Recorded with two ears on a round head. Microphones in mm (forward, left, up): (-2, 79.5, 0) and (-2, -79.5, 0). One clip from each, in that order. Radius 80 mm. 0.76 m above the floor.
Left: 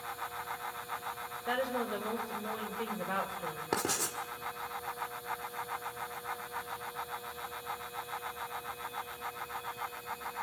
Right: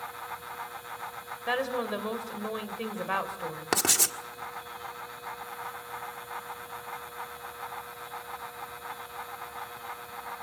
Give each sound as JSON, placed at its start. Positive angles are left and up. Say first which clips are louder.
{"t": 1.5, "sound": "a woman speaking", "louder": "right 4 dB", "side_deg": -40, "distance_m": 3.0}
{"t": 3.7, "sound": "writing", "louder": "right 8 dB", "side_deg": -65, "distance_m": 1.6}